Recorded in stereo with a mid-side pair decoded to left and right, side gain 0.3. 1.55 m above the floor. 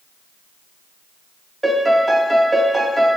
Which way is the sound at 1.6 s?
20° right.